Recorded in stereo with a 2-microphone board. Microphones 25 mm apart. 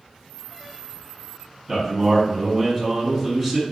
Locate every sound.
1.7 s a man speaking: 20° right (ahead or behind), 1.3 m